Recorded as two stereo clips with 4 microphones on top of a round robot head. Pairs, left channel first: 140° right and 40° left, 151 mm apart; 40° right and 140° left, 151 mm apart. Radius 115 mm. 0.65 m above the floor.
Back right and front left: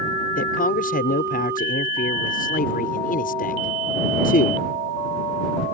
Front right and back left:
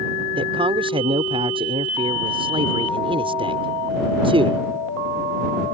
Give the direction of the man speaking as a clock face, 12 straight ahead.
5 o'clock.